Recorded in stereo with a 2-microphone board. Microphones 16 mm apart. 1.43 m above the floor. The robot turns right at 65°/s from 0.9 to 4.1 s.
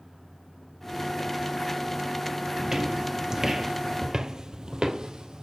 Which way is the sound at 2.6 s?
30° right (ahead or behind).